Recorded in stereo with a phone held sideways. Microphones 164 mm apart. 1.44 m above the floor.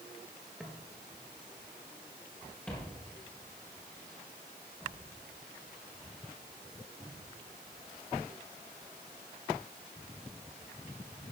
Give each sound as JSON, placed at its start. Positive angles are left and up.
{"t": 0.6, "sound": "footsteps", "side_deg": -5, "distance_m": 1.6}